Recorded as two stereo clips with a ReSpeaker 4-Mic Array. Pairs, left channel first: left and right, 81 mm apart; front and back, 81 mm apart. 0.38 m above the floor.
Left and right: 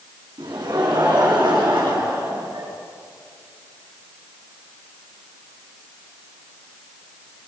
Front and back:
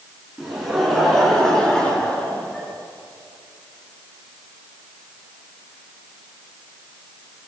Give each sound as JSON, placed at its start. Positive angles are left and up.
{"t": 0.4, "sound": "laughter", "azimuth_deg": -95, "distance_m": 4.5}